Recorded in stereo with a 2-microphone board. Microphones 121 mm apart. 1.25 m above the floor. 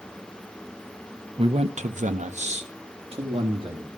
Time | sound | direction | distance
1.4 | a man speaking | 45° right (ahead or behind) | 0.9 m